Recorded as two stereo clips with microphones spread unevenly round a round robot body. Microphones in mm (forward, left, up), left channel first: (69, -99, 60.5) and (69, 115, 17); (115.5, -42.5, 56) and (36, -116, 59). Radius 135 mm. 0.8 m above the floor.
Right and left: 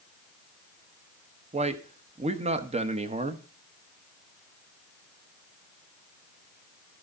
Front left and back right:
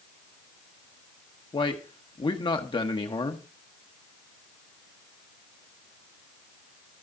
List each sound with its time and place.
1.5 s a man speaking: 55° left, 1.0 m